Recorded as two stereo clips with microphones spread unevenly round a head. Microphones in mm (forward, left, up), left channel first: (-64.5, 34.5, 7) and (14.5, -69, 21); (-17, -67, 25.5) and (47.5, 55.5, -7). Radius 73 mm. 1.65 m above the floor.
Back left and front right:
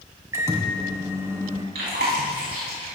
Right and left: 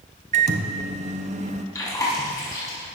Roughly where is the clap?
I don't hear a clap.